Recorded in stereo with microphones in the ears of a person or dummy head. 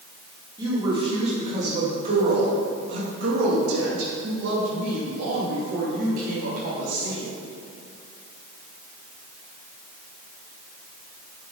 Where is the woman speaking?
15° right (ahead or behind), 3 m; by 7.3 s 75° right (ahead or behind), 4.5 m.